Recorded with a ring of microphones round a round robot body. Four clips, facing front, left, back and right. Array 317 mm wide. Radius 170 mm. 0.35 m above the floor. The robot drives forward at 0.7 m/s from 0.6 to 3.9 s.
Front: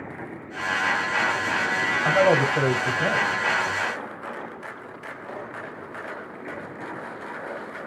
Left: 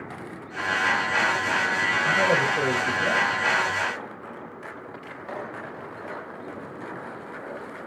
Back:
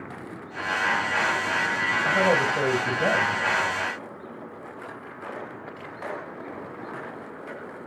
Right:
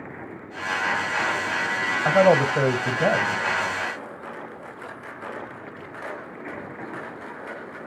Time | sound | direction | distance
2.0 | a man speaking | 75° right | 2.0 m